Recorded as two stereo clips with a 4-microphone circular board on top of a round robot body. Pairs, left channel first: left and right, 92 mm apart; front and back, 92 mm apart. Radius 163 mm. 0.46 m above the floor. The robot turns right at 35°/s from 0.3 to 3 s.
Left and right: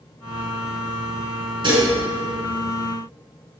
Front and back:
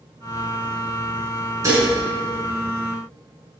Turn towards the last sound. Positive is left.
turn(degrees=-75)